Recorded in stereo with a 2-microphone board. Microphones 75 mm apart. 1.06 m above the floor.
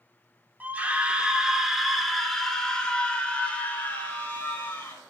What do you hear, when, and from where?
0.6 s a scream: 25° right (ahead or behind), 3 m; by 5.0 s 25° left (ahead or behind), 5 m